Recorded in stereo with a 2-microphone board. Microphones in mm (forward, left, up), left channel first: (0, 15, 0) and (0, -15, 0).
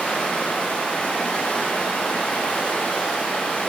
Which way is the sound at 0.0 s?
70° left (ahead or behind).